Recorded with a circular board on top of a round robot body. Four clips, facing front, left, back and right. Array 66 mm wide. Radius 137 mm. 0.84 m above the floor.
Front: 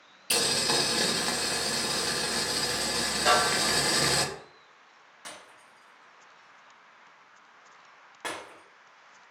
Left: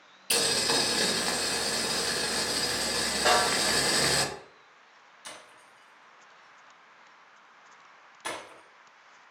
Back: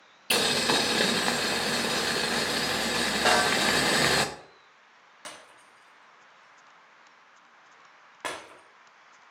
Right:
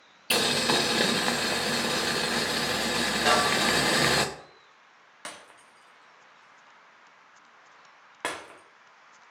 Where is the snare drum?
165° left, 2.0 m.